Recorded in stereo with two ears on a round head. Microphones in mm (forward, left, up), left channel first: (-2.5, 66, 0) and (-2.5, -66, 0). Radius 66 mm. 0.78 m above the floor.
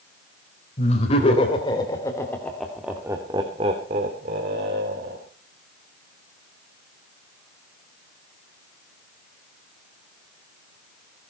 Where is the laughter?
45° left (ahead or behind), 4 m; by 5.2 s 70° right (ahead or behind), 4 m.